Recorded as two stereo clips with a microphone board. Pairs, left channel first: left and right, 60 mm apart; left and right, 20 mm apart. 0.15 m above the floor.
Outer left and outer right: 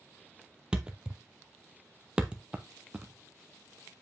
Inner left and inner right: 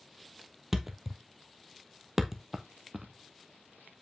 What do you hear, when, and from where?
0.7 s a thud: 15° right (ahead or behind), 0.8 m